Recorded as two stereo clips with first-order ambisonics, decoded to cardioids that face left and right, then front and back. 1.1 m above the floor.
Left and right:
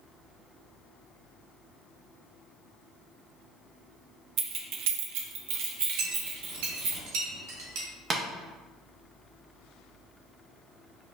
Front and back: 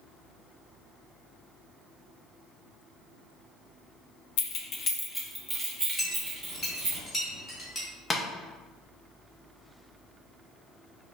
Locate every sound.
4.4 s keys jangling: 35° right, 0.5 m; by 7.0 s 125° right, 1.5 m
6.0 s a clink: 85° right, 1.7 m
8.1 s tapping: 65° right, 0.6 m